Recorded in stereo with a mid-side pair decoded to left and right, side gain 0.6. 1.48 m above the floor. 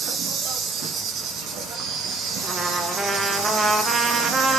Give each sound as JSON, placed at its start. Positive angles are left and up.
{"t": 0.0, "sound": "an insect", "azimuth_deg": -60, "distance_m": 0.9}
{"t": 2.4, "sound": "a trumpet", "azimuth_deg": -25, "distance_m": 0.7}